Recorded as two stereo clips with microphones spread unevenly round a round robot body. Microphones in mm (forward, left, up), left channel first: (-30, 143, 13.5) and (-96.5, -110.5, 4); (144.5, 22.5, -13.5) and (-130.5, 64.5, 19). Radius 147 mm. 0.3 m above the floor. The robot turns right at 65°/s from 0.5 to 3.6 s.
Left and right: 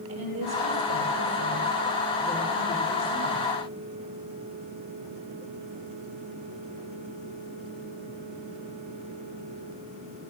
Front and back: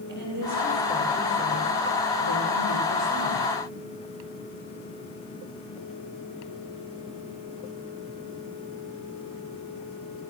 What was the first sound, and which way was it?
A woman speaking, 130° right.